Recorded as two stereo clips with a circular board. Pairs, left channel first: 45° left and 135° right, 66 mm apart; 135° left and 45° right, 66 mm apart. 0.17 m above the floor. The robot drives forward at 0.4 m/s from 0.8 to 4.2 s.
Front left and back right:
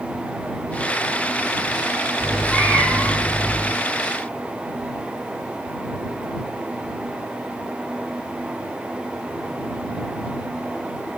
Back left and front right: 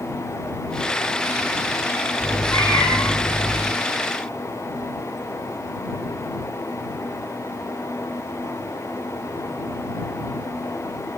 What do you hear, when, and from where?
2.2 s a cat meowing: 135° left, 6.5 m; by 3.7 s 140° left, 6.5 m